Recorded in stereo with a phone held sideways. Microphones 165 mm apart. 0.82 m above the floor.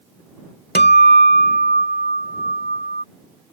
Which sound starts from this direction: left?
A guitar, at 0.8 s.